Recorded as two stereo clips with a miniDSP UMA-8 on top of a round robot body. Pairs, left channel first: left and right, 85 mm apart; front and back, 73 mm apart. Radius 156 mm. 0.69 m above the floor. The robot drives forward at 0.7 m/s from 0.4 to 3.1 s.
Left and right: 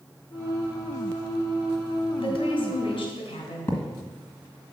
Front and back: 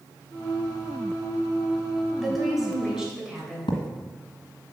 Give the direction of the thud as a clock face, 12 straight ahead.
11 o'clock.